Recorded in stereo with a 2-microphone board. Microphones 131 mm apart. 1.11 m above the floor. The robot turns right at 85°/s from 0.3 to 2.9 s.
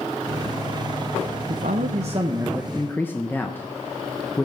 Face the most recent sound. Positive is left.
turn(degrees=15)